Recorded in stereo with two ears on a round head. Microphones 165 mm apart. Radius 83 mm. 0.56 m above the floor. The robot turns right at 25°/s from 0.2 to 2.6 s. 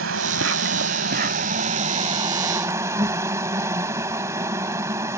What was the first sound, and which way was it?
An insect, 75° right.